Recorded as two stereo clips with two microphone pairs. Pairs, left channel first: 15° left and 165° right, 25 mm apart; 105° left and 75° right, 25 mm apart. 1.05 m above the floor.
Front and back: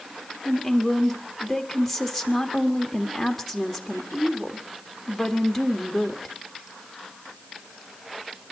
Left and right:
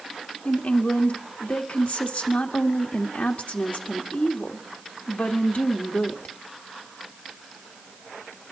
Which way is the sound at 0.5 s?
105° left.